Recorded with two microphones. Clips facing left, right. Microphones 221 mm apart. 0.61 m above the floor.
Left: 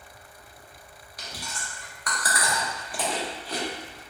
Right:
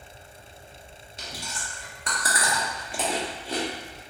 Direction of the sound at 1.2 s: 25° right (ahead or behind).